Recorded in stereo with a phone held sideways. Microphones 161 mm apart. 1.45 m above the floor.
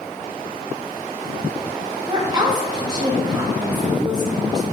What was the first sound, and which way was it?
A woman speaking, 25° right (ahead or behind).